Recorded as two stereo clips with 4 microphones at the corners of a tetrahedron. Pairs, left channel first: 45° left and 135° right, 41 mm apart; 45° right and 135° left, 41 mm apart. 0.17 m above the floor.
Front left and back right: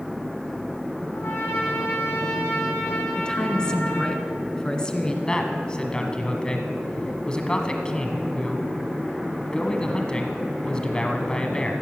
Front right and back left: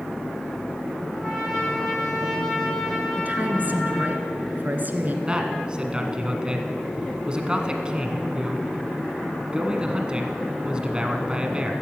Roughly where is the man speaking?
Left.